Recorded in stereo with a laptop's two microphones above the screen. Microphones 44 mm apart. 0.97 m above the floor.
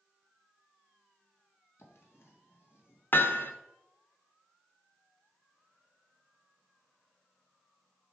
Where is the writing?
70° left (ahead or behind), 1.6 m.